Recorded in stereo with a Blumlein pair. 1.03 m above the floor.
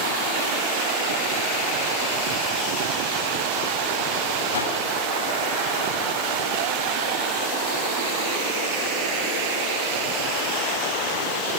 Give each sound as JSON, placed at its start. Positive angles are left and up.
{"t": 4.5, "sound": "a whoosh", "azimuth_deg": 60, "distance_m": 6.0}